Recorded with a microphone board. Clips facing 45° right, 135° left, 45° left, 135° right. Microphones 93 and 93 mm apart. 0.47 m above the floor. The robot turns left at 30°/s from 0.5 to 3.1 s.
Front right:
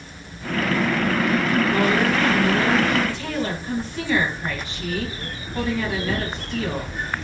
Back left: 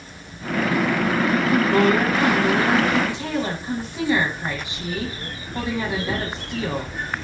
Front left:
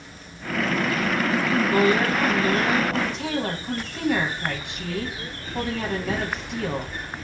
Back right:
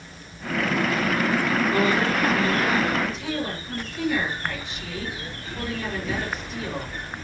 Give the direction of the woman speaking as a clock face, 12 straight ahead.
8 o'clock.